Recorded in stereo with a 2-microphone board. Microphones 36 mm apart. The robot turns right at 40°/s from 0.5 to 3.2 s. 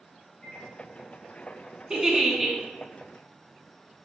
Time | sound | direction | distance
0.4 | a microwave | 45° left (ahead or behind) | 1.3 m
1.9 | a giggle | 25° right (ahead or behind) | 0.8 m